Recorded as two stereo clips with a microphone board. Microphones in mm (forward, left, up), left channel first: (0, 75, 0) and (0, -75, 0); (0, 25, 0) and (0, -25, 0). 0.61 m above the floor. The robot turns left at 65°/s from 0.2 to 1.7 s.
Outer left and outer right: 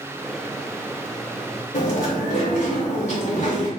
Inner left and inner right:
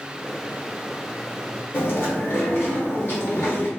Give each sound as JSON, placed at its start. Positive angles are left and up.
{"t": 1.7, "sound": "chewing", "side_deg": 55, "distance_m": 1.0}